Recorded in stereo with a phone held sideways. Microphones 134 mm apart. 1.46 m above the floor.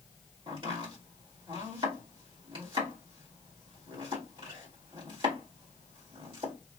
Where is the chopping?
40° right (ahead or behind), 1.8 m.